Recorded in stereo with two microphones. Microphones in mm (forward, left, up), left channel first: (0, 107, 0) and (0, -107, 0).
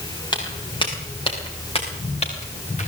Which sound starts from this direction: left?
Footsteps, at 0.3 s.